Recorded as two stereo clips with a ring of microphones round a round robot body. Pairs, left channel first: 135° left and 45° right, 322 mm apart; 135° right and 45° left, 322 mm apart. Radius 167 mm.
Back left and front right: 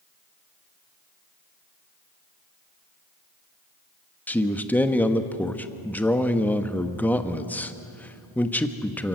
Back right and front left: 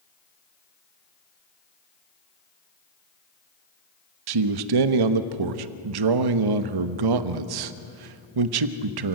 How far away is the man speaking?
About 1.1 m.